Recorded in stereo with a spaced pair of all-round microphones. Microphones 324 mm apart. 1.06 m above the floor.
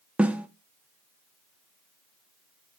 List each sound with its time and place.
0.2 s a snare drum: 5° right (ahead or behind), 0.5 m